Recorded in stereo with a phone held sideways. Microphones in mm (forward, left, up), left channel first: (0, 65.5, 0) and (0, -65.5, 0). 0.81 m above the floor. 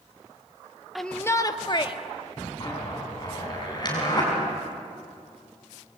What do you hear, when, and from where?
0.9 s a shout: centre (ahead or behind), 0.7 m; by 2.0 s 40° left (ahead or behind), 1.3 m
2.6 s a zipper: 35° left (ahead or behind), 6.5 m